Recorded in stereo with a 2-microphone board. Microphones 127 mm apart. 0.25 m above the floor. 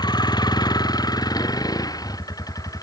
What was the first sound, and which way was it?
A vehicle, 35° left (ahead or behind).